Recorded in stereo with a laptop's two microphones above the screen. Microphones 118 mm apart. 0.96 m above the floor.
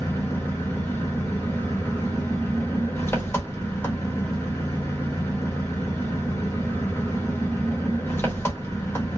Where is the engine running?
20° left (ahead or behind), 0.8 m.